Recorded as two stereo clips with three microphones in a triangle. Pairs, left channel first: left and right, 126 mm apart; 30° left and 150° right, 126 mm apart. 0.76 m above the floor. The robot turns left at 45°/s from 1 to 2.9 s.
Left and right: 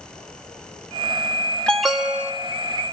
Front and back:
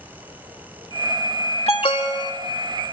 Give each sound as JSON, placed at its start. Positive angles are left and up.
{"t": 1.7, "sound": "an alarm", "azimuth_deg": 10, "distance_m": 1.5}